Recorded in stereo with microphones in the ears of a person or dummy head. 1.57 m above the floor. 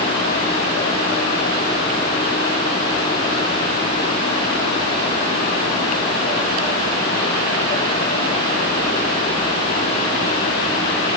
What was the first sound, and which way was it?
Only background noise.